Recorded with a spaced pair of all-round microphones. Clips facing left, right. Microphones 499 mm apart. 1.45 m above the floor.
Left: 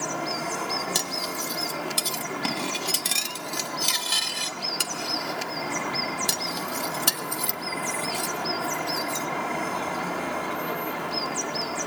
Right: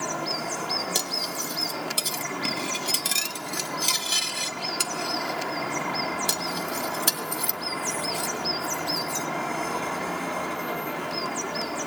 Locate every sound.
0.9 s cutlery clinking: 15° left (ahead or behind), 0.8 m